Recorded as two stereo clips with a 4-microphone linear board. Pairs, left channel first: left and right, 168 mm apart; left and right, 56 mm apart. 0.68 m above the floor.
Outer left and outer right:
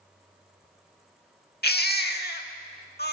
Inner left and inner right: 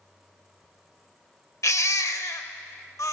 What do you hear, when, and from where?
1.6 s a baby crying: 70° left (ahead or behind), 0.8 m